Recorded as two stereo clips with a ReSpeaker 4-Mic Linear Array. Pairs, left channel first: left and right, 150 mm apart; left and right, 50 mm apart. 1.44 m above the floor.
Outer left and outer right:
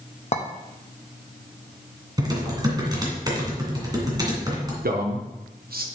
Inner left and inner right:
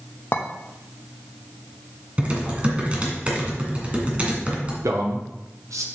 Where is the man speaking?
85° right, 0.8 m.